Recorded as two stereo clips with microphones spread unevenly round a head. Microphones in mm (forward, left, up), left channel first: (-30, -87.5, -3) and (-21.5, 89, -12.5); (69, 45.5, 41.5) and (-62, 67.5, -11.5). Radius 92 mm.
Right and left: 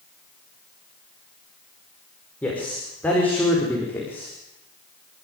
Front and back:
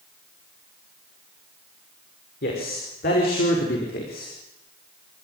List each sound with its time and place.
2.4 s a man speaking: 10° right, 5.5 m; by 4.3 s 15° right, 4 m